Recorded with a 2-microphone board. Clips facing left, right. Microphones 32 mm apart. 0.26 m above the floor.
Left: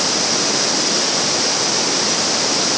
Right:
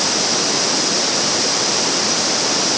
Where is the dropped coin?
I don't hear a dropped coin.